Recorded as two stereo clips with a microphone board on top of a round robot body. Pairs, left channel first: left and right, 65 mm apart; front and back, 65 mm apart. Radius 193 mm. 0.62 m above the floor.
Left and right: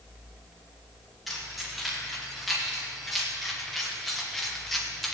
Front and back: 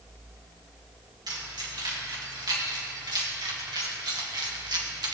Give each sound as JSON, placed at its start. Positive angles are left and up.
{"t": 1.3, "sound": "keys jangling", "azimuth_deg": 180, "distance_m": 5.0}